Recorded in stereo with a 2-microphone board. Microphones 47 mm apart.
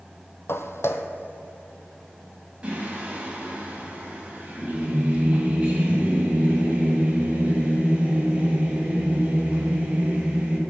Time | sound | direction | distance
0.5 | footsteps | 60° left (ahead or behind) | 0.5 m
2.6 | singing | 25° right (ahead or behind) | 1.9 m